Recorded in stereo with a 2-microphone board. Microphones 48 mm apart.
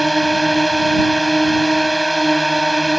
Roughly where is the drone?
Centre.